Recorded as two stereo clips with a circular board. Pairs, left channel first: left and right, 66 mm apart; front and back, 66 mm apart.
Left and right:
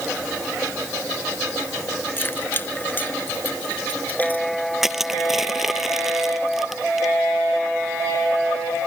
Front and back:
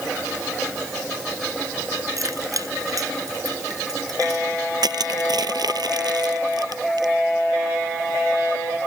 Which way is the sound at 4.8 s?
175° right.